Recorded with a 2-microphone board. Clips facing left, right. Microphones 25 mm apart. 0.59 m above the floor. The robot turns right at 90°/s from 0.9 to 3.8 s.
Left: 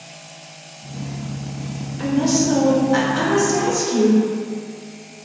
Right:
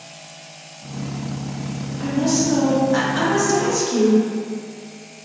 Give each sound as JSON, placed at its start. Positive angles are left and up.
{"t": 2.0, "sound": "a woman speaking", "side_deg": 20, "distance_m": 0.6}